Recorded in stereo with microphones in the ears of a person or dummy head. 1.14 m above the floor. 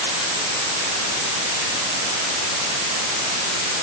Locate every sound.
Only background noise.